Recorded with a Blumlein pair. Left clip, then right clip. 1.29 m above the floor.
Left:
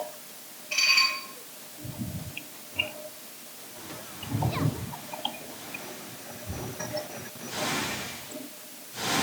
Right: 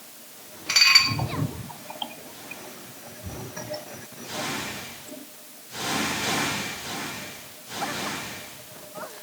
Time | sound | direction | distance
0.7 | dishes clattering | 45° right | 2.5 m